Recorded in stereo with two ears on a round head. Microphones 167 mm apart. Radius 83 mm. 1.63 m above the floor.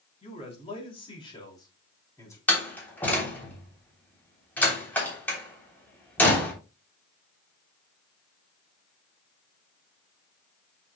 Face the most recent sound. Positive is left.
turn(degrees=10)  # may be behind; listen again after turning